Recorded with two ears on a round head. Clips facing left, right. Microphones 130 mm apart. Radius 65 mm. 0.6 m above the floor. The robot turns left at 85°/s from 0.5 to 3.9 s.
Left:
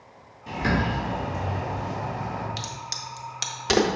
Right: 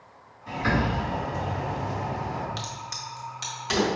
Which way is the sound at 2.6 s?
10° left (ahead or behind).